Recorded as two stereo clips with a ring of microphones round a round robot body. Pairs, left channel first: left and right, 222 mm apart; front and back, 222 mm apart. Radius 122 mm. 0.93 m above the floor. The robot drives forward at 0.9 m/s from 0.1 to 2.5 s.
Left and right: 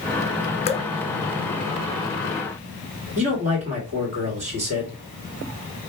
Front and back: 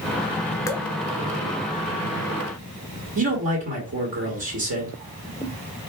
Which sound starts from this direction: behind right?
A man speaking, at 3.1 s.